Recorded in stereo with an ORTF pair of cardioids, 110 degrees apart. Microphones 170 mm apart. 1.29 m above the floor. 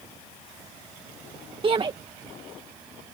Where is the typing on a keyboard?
I don't hear typing on a keyboard.